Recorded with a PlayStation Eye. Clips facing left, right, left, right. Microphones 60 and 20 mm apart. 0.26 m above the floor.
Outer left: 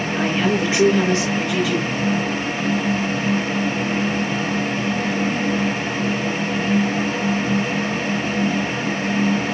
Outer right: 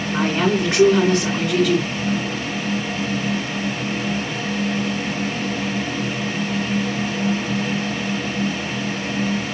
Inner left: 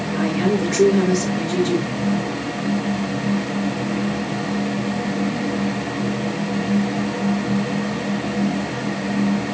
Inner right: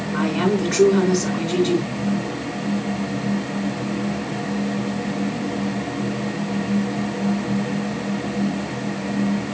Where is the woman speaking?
65° right (ahead or behind), 2.5 m.